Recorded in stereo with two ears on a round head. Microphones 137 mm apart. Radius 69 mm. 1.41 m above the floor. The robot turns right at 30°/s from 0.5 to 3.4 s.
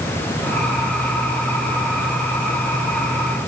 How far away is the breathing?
I don't hear breathing.